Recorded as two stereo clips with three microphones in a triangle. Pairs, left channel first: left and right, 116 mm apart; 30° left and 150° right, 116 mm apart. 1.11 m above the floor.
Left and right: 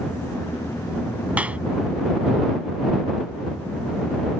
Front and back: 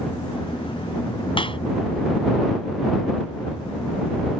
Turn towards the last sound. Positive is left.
turn(degrees=-10)